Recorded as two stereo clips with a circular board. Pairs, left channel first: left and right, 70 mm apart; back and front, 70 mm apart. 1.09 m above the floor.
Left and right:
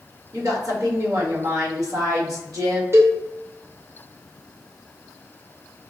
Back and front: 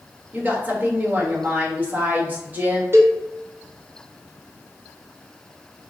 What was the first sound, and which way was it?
A woman speaking, 65° right.